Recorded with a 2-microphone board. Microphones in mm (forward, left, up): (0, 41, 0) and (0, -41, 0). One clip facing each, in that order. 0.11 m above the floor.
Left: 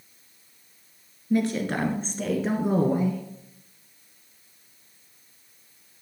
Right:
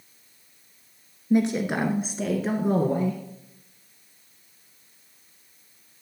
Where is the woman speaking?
20° right (ahead or behind), 1.9 m; by 3.2 s 10° left (ahead or behind), 2 m.